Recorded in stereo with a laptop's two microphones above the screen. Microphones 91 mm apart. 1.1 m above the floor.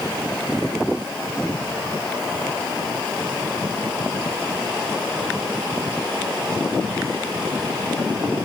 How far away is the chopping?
I don't hear chopping.